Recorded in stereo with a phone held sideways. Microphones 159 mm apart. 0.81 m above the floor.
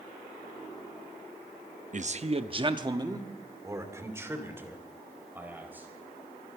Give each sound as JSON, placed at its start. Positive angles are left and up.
{"t": 1.9, "sound": "a man speaking", "side_deg": -50, "distance_m": 0.6}